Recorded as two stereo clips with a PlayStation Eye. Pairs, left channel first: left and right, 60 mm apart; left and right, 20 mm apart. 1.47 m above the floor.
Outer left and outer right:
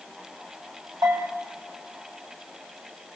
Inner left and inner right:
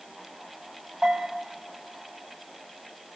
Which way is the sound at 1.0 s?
85° right.